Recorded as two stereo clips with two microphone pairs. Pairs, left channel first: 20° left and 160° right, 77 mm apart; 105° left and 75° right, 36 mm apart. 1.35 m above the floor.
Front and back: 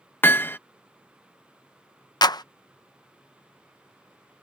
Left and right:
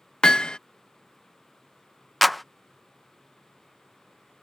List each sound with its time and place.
0.2 s hammering: 60° left
2.2 s a clap: 15° left